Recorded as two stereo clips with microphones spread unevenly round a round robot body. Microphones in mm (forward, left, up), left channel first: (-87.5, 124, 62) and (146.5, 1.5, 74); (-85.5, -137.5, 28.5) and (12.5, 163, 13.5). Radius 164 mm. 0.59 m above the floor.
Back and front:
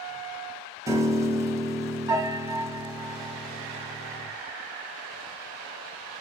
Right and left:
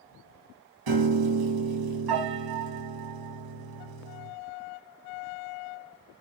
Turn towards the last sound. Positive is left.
turn(degrees=50)